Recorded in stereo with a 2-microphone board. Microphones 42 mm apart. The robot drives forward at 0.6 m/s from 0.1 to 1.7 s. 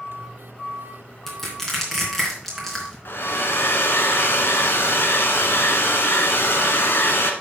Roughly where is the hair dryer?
Left.